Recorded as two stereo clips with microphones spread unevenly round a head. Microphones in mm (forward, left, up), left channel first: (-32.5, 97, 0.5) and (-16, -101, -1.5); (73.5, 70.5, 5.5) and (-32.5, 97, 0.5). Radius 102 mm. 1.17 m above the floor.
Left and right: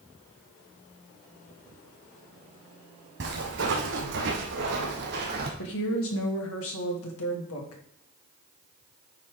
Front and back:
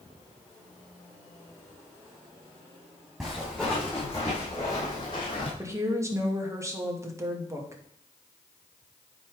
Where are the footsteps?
100° right, 2.5 m; by 5.5 s 55° right, 1.9 m.